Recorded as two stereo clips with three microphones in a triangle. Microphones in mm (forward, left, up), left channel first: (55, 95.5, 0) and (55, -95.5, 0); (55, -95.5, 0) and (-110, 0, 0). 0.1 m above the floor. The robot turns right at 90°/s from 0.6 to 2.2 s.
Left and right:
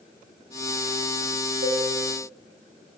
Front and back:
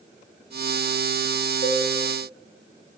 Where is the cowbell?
80° right, 5.5 m; by 1.9 s 60° right, 5.5 m.